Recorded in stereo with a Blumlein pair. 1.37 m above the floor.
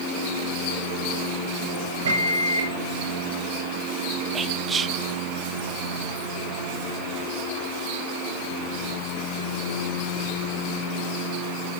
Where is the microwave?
65° right, 0.9 m.